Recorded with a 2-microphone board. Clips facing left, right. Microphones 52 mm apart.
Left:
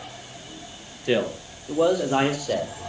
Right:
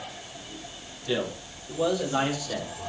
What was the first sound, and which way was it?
A man speaking, 65° left (ahead or behind).